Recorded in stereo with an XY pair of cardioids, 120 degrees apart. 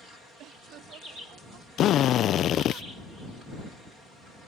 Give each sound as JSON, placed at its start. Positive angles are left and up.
{"t": 0.4, "sound": "laughter", "azimuth_deg": -70}
{"t": 1.8, "sound": "a drill", "azimuth_deg": 60}